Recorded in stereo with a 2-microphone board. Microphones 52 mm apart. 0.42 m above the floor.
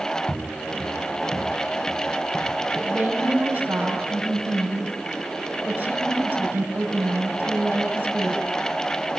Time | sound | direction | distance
0.3 | footsteps | 40° left (ahead or behind) | 1.7 m
2.7 | a woman speaking | 30° right (ahead or behind) | 7.5 m